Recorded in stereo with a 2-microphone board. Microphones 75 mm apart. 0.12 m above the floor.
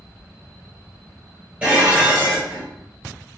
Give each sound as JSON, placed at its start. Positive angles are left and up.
{"t": 1.6, "sound": "dishes clattering", "side_deg": -15, "distance_m": 1.5}